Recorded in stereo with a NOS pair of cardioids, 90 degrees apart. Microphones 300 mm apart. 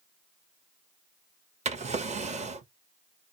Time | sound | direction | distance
1.6 | a drawer | 25° right | 0.7 m